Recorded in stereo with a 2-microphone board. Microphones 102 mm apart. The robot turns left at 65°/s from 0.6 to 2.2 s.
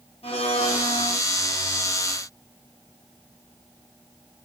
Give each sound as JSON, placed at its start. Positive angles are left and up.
{"t": 0.2, "sound": "a blender", "azimuth_deg": 110, "distance_m": 3.5}